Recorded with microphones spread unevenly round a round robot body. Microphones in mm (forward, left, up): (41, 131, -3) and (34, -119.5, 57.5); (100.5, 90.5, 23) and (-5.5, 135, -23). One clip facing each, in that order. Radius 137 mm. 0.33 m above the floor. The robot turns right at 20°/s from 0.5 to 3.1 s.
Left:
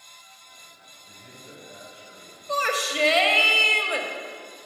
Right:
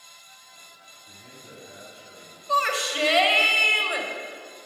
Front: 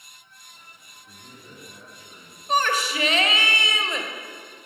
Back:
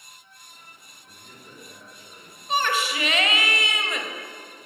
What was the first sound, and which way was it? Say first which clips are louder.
A man speaking: even, front 1 dB; 55° right.